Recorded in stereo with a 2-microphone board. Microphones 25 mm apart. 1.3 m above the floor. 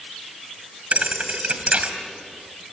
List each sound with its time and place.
0.9 s a thud: 60° right (ahead or behind), 3 m